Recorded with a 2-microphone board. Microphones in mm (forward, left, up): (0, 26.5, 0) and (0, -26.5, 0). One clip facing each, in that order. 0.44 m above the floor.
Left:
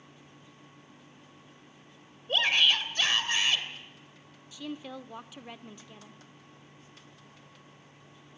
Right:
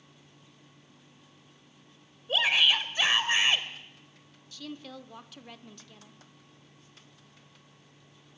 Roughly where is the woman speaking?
Centre.